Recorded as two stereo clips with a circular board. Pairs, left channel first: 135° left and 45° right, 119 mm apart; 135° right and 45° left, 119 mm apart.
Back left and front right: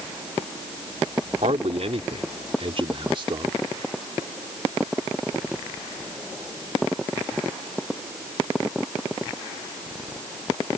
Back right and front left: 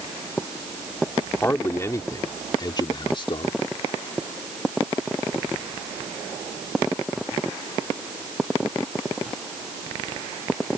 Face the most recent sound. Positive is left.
turn(degrees=-95)